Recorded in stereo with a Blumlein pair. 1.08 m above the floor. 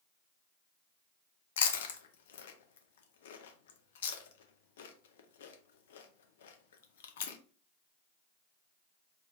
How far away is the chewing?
About 0.6 m.